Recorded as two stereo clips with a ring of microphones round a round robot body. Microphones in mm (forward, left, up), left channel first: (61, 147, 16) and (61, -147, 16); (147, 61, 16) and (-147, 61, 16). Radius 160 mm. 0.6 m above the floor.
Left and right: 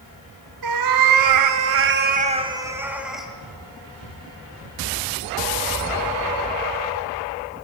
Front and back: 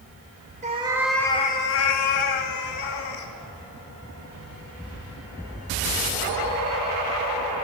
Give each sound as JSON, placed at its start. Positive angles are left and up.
{"t": 0.6, "sound": "a cat meowing", "azimuth_deg": -110, "distance_m": 0.9}